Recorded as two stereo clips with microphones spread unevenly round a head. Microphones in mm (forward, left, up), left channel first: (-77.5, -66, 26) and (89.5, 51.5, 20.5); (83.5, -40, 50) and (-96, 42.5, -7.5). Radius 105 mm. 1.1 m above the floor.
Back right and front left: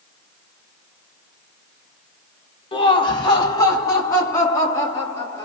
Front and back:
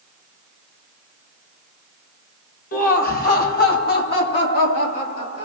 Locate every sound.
2.7 s laughter: 80° right, 1.1 m; by 5.4 s 65° right, 3 m